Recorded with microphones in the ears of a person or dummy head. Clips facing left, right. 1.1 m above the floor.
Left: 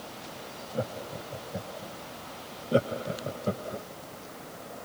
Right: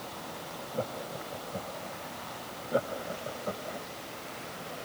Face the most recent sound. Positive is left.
turn(degrees=35)  # may be behind; listen again after turning